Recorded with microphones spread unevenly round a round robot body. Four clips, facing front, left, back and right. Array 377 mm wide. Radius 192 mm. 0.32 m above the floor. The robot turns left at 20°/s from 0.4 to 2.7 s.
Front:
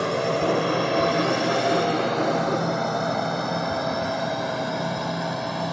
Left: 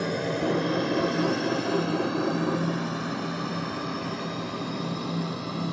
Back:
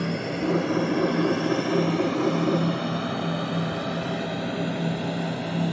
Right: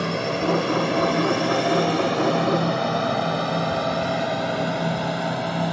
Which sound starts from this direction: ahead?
A drone, at 0.0 s.